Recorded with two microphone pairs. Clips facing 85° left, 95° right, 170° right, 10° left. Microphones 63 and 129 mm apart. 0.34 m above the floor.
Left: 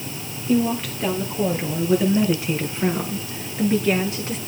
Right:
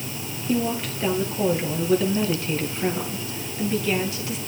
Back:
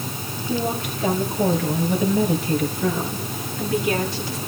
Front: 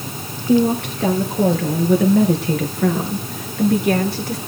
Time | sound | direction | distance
0.5 | a woman speaking | 10° right | 5.5 m